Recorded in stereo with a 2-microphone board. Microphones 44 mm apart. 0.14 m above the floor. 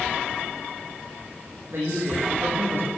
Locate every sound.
1.7 s a man speaking: 55° right (ahead or behind), 7.5 m